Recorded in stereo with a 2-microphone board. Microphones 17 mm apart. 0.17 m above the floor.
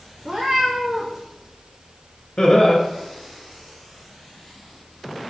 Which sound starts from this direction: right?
A cat meowing, at 0.2 s.